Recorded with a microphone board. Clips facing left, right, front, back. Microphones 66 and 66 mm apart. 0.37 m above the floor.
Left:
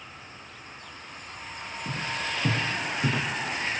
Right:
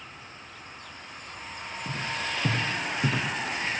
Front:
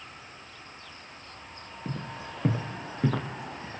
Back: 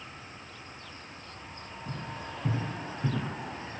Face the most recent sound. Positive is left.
turn(degrees=-15)